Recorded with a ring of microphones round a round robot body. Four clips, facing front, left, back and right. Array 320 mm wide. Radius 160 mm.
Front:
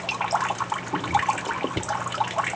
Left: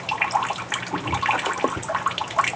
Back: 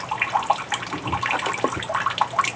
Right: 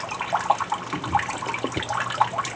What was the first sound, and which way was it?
Only background noise.